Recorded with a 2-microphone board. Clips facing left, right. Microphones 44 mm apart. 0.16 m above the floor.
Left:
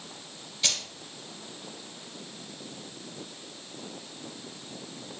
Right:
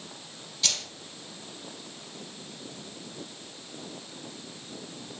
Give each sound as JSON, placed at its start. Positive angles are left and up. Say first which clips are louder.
{"t": 0.6, "sound": "keys jangling", "louder": "left 1 dB", "side_deg": 30, "distance_m": 1.7}